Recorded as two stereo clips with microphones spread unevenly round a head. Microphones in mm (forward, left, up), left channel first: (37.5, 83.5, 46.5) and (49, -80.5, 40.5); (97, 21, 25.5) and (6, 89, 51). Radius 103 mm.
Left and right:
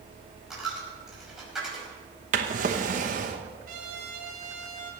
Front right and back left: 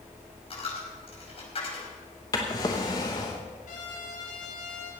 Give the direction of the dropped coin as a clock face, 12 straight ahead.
12 o'clock.